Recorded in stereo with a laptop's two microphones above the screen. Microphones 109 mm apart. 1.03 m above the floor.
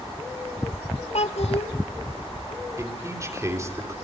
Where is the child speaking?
70° left (ahead or behind), 1.7 m.